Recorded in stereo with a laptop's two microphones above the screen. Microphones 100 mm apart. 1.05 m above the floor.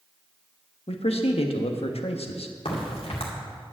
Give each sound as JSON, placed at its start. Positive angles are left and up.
{"t": 0.9, "sound": "a man speaking", "side_deg": 80, "distance_m": 1.2}
{"t": 2.6, "sound": "a crack", "side_deg": 75, "distance_m": 2.5}